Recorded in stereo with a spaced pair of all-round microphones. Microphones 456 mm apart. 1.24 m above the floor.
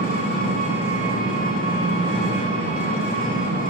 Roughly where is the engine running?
Left.